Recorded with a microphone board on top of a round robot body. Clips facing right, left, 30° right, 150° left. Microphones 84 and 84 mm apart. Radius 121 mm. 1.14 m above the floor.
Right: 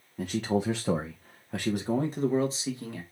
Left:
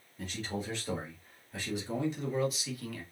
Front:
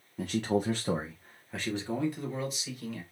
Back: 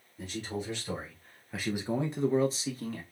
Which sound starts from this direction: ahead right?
A man speaking, at 0.2 s.